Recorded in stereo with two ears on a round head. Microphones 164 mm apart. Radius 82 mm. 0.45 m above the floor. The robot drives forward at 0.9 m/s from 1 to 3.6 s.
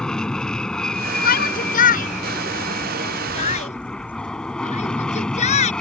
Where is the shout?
50° left (ahead or behind); by 5.7 s 35° left (ahead or behind).